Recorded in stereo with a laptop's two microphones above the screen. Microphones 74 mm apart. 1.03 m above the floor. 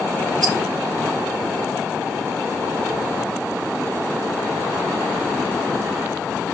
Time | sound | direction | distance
0.4 | a rattle | 60° right (ahead or behind) | 1.4 m